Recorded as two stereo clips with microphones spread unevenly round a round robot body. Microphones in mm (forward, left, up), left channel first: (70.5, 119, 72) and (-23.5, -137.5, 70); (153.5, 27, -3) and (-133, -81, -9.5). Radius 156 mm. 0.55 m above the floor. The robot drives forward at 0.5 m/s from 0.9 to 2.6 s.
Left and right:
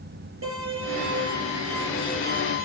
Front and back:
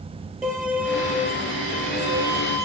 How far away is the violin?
About 4.5 m.